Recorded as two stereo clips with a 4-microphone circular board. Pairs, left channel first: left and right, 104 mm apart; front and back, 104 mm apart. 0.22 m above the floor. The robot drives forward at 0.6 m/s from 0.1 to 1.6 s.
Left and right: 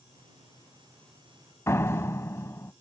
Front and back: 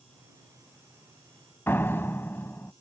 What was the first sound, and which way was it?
A door slam, 50° left.